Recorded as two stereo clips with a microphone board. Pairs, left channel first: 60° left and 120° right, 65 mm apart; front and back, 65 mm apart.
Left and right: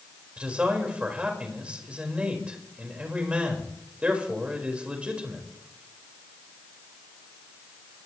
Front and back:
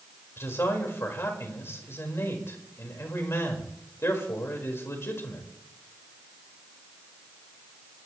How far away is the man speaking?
About 4.5 m.